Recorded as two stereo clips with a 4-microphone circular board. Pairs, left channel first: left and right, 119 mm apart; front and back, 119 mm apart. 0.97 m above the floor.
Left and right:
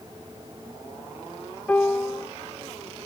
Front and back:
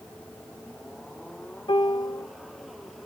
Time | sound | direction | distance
1.7 | a piano | 20° left | 0.8 m